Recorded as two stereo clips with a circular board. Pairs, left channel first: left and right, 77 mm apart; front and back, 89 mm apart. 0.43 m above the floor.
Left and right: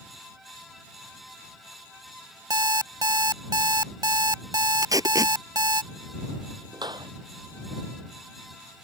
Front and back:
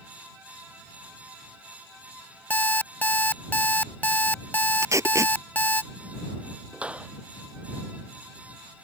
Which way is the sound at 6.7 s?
105° right.